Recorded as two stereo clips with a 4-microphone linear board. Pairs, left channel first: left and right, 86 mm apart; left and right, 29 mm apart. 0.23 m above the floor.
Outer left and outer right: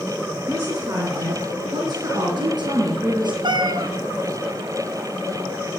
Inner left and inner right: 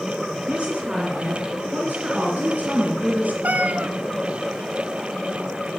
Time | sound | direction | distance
0.5 | a woman speaking | 25° right (ahead or behind) | 3 m
3.4 | a cat meowing | 65° right (ahead or behind) | 0.7 m